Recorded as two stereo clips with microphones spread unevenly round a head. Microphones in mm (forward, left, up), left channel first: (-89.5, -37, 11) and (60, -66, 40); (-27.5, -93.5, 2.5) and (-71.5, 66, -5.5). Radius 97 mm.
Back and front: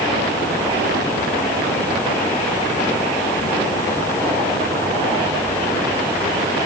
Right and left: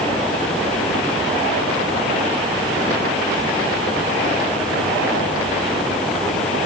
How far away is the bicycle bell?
No bicycle bell in this recording.